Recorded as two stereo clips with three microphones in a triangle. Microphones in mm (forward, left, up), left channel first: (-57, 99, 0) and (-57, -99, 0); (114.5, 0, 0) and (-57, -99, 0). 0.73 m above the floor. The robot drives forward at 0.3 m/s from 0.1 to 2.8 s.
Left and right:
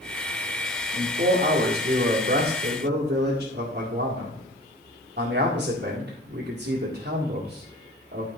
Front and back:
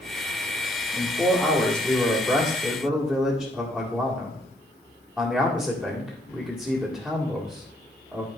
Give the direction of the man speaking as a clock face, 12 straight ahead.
2 o'clock.